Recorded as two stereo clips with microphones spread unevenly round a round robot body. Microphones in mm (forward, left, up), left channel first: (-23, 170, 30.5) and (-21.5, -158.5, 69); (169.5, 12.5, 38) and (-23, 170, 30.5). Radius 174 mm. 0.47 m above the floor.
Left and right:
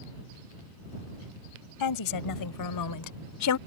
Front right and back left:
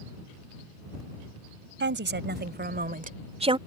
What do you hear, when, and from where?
1.8 s a woman speaking: 100° left; by 3.6 s 75° left